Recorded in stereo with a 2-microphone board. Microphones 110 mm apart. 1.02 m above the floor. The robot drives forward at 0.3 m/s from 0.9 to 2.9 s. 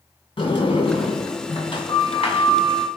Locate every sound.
0.4 s a sliding door: 55° left (ahead or behind), 2.5 m; by 2.9 s 70° left (ahead or behind), 2 m